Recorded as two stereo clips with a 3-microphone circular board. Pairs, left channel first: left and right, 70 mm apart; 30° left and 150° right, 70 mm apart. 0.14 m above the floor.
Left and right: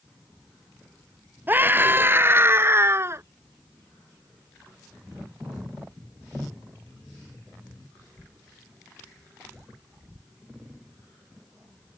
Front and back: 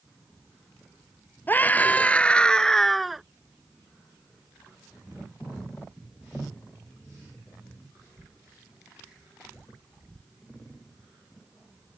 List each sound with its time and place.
1.5 s a scream: 30° right; by 3.2 s 65° right